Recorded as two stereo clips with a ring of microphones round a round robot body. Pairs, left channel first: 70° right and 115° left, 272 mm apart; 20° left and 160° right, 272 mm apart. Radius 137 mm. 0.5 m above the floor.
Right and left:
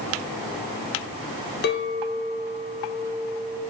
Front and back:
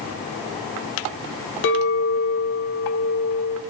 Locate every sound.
1.6 s a clink: 20° right, 1.1 m